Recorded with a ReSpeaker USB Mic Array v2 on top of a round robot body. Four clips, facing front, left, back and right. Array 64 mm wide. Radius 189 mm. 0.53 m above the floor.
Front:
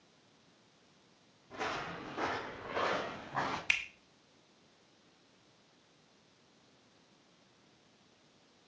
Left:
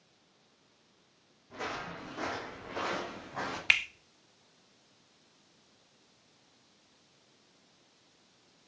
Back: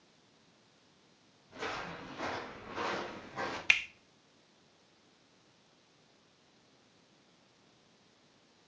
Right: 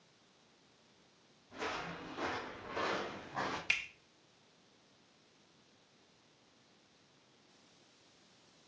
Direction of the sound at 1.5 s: 40° left.